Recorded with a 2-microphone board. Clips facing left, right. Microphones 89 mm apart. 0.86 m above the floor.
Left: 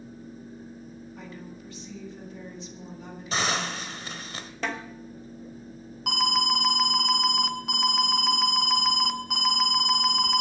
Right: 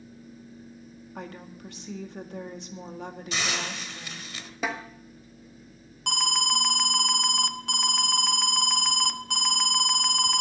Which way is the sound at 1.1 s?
60° right (ahead or behind).